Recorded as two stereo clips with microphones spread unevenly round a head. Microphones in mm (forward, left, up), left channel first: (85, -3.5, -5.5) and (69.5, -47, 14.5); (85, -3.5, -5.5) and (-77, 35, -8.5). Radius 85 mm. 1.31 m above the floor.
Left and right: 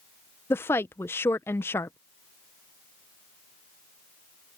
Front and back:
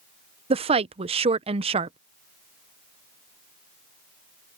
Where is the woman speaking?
110° left.